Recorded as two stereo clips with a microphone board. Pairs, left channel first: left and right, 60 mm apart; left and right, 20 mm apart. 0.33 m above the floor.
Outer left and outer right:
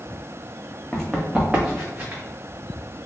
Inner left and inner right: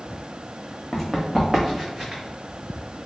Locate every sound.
0.9 s running footsteps: 10° left (ahead or behind), 1.0 m; by 2.2 s 30° right (ahead or behind), 1.4 m